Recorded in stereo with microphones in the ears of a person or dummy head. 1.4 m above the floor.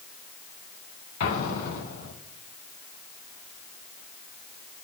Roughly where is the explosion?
Left.